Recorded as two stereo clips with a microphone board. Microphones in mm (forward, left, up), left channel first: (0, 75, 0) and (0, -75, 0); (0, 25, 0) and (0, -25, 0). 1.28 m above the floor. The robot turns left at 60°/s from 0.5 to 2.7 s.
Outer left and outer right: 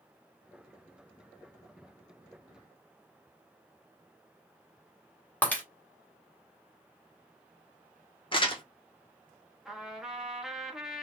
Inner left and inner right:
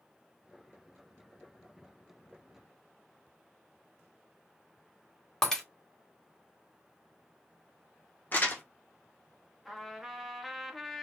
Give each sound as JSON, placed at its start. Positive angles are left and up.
{"t": 5.4, "sound": "breaking glass", "side_deg": 10, "distance_m": 1.5}
{"t": 8.3, "sound": "crumpling", "side_deg": 35, "distance_m": 1.1}
{"t": 9.7, "sound": "a trumpet", "side_deg": -5, "distance_m": 1.2}